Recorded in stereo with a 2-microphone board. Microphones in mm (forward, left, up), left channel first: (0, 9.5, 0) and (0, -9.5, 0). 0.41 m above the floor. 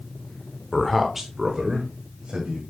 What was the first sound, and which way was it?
A man speaking, 20° left (ahead or behind).